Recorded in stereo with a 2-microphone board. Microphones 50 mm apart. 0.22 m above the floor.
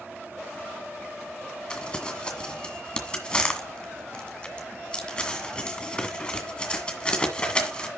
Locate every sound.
1.7 s crumpling: 20° left (ahead or behind), 1.8 m